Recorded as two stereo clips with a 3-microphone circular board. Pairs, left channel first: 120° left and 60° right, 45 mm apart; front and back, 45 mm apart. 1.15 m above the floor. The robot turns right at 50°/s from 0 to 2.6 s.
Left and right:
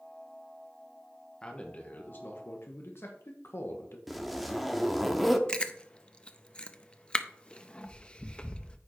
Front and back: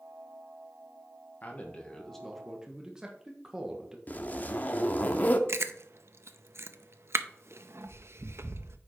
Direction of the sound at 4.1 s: 30° left.